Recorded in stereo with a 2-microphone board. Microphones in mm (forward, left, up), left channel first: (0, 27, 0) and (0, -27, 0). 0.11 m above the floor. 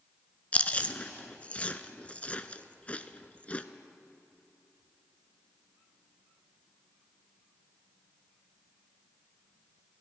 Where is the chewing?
25° left (ahead or behind), 0.5 m.